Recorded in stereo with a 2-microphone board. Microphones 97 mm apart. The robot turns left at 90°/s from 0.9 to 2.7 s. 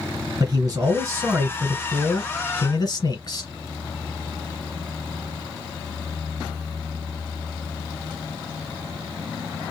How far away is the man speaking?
About 1.6 m.